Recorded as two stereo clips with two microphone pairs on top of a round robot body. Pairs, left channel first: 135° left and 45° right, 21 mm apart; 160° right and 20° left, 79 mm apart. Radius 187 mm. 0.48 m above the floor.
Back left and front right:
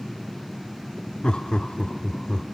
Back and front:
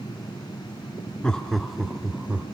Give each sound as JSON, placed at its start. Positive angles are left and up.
{"t": 1.2, "sound": "laughter", "azimuth_deg": 120, "distance_m": 1.8}